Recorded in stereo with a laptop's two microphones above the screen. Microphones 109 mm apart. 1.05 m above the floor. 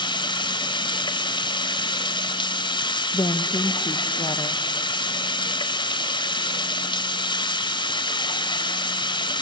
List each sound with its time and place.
0.0 s running water: 45° left (ahead or behind), 1.4 m
3.1 s a woman speaking: 40° left (ahead or behind), 1.0 m